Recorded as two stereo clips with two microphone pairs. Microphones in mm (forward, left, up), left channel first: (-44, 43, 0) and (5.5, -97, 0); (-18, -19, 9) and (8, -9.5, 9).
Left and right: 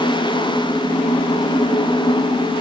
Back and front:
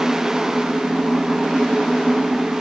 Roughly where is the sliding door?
No sliding door in this recording.